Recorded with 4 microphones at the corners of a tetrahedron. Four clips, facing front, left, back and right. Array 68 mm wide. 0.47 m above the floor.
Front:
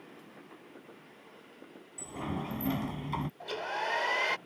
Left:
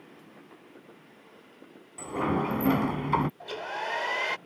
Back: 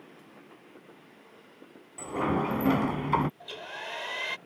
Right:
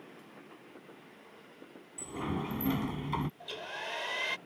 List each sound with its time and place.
2.0 s a sliding door: 140° left
3.4 s a hair dryer: 50° left